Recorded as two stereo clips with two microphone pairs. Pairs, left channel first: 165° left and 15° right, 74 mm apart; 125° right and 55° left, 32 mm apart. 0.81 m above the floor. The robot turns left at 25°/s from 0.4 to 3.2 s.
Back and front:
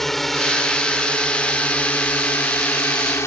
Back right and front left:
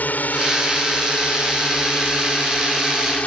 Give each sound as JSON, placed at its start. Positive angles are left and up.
{"t": 0.0, "sound": "a drone", "azimuth_deg": -110}